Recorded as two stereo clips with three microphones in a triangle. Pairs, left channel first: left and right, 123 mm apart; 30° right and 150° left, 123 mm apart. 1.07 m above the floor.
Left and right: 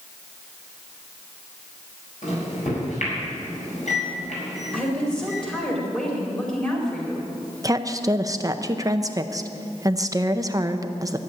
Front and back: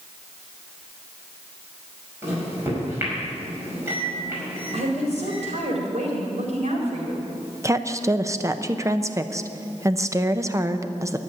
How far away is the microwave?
About 5.5 m.